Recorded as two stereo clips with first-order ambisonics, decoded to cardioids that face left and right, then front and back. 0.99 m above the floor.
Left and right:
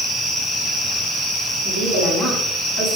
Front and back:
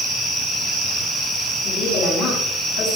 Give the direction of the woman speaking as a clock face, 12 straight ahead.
11 o'clock.